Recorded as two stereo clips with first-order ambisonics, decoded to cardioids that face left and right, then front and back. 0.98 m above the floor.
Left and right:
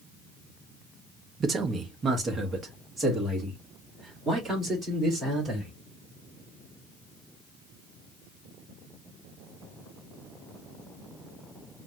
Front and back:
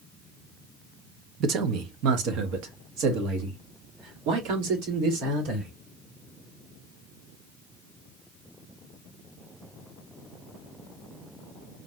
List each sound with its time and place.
1.4 s a man speaking: 150° right, 0.7 m; by 5.7 s 165° right, 3 m